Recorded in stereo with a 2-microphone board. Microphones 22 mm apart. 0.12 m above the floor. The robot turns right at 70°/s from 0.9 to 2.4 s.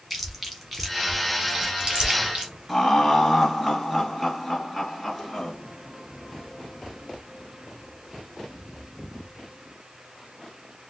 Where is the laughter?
5° right (ahead or behind), 1.7 m.